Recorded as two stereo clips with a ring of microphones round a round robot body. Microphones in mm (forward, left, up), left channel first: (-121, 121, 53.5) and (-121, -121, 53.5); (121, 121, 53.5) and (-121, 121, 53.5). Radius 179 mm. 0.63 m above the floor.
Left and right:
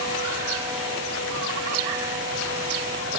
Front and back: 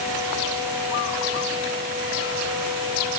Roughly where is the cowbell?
No cowbell in this recording.